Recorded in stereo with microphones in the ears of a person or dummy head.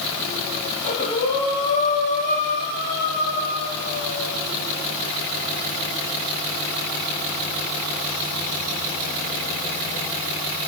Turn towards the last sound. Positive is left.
turn(degrees=40)  # may be behind; listen again after turning